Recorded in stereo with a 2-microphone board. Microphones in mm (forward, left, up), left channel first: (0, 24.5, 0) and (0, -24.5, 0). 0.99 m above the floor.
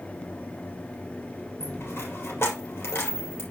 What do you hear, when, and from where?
1.6 s a dropped coin: 60° left (ahead or behind), 3.5 m